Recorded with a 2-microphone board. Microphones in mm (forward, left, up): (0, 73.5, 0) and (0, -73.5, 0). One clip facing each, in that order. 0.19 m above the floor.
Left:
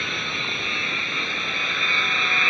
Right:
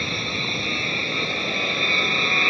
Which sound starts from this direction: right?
An aircraft, at 0.0 s.